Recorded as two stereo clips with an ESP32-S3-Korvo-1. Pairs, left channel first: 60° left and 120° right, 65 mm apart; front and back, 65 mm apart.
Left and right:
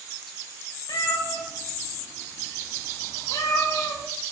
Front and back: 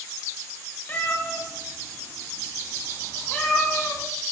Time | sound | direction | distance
0.9 | a cat meowing | 60° left | 3 m